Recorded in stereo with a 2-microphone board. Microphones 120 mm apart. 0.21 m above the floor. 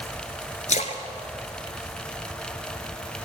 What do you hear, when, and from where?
0.7 s a splash: 80° left, 0.8 m